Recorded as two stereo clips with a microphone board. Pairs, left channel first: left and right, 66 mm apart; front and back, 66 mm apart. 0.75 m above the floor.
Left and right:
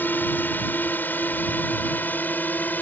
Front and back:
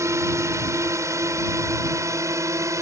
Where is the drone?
150° left.